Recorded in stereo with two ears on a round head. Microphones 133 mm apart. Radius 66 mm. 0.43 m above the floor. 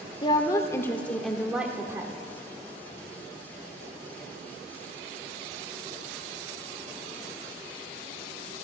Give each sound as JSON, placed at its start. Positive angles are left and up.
{"t": 0.2, "sound": "a woman speaking", "side_deg": 30, "distance_m": 1.2}